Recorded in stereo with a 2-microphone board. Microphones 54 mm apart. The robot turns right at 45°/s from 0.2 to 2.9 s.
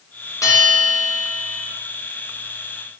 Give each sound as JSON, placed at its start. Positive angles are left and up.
{"t": 0.4, "sound": "a bell", "azimuth_deg": 110, "distance_m": 4.0}